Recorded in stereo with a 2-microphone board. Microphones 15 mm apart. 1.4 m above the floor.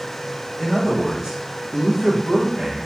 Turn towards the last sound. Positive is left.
turn(degrees=-65)  # may be behind; listen again after turning